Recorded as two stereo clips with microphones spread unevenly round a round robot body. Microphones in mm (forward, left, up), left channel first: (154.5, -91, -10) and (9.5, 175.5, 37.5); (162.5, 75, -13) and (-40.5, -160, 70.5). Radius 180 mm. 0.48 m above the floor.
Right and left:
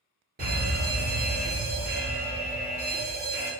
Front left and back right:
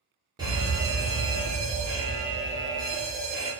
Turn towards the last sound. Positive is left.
turn(degrees=130)